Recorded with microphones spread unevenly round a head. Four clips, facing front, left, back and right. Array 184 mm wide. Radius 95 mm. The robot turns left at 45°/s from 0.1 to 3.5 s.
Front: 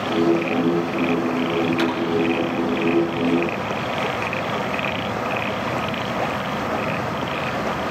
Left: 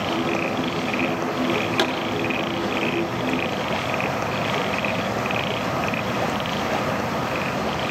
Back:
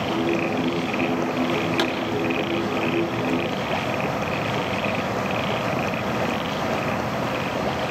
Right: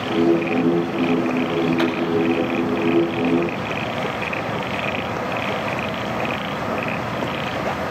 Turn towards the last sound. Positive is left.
turn(degrees=25)